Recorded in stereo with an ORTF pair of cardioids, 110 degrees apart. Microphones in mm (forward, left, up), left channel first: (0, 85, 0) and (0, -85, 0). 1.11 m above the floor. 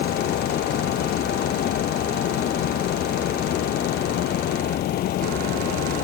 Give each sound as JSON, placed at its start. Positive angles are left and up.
{"t": 0.0, "sound": "a fan", "azimuth_deg": 70}